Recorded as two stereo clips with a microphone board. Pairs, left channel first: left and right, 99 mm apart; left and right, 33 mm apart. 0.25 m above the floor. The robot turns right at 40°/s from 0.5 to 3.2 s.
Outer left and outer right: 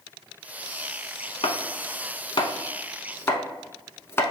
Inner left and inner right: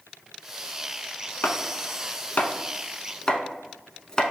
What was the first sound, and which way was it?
Chopping, 80° left.